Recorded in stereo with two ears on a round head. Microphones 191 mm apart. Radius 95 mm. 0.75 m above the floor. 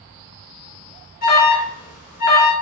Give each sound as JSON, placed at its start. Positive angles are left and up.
{"t": 1.2, "sound": "an alarm", "side_deg": 40, "distance_m": 1.0}